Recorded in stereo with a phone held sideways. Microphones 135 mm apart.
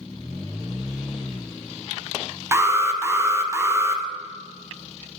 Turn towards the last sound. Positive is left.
turn(degrees=-20)  # may be behind; listen again after turning